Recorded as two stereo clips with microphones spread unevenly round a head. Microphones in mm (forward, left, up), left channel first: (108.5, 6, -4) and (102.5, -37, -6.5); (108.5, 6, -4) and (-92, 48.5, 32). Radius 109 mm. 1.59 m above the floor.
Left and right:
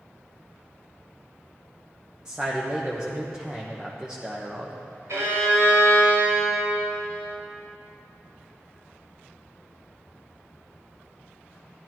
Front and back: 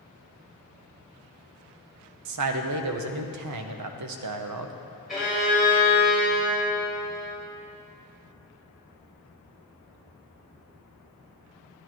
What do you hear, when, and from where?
2.2 s a man speaking: 175° left, 0.9 m
5.1 s a violin: 105° right, 3.5 m